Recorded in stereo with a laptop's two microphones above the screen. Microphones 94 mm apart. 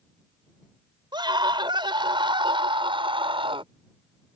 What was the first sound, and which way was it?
A scream, 50° right (ahead or behind).